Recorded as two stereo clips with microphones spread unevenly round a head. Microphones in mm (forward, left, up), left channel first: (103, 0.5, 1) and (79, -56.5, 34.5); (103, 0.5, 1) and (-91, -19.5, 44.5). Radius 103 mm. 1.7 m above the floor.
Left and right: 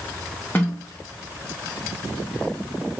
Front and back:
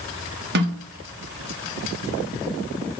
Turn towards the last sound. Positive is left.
turn(degrees=150)